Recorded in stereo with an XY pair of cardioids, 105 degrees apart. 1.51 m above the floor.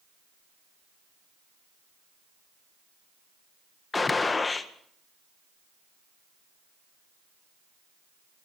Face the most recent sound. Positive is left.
turn(degrees=25)